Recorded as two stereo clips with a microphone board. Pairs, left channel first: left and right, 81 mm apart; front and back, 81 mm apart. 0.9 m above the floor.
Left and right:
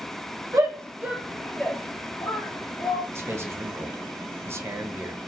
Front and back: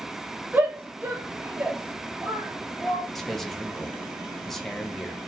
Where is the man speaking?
85° right, 0.5 m.